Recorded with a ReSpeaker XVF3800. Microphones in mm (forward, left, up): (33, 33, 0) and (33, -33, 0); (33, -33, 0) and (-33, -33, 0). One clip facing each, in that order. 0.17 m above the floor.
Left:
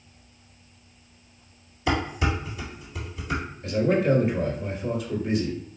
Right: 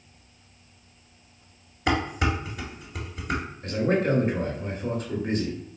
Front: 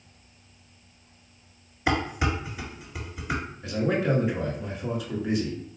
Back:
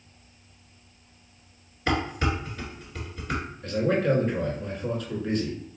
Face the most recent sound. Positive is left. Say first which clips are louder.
# left 2 dB, back 2 dB
turn(degrees=-80)